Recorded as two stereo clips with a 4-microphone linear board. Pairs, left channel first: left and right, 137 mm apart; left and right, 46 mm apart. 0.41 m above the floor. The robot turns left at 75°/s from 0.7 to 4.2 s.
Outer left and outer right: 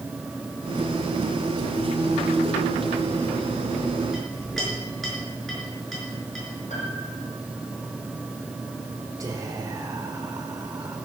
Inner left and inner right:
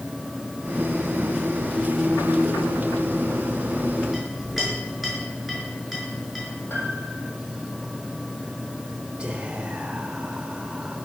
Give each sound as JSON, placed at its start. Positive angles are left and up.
{"t": 4.1, "sound": "a clink", "side_deg": -5, "distance_m": 5.0}
{"t": 6.7, "sound": "a piano", "side_deg": 60, "distance_m": 4.0}
{"t": 9.2, "sound": "whispering", "side_deg": -25, "distance_m": 1.2}